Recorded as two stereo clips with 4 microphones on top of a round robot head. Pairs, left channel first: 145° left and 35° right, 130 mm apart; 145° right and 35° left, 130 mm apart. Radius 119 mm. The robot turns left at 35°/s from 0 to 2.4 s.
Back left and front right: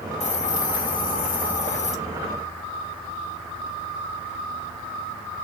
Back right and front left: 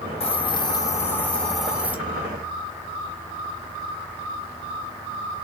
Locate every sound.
0.2 s a hiss: 175° left, 2 m; by 1.9 s 115° left, 2 m